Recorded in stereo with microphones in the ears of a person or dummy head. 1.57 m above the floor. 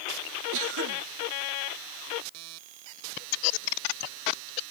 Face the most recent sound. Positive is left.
turn(degrees=-75)  # may be behind; listen again after turning